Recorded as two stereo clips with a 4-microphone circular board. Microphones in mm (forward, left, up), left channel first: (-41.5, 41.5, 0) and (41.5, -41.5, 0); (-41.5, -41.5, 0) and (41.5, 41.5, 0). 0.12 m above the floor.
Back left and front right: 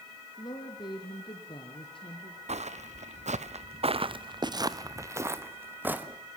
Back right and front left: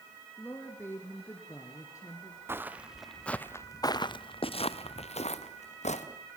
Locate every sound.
0.4 s a woman speaking: 160° left, 1.8 m; by 2.4 s 165° left, 2.5 m
2.5 s footsteps: 25° right, 1.0 m; by 6.1 s 120° right, 2 m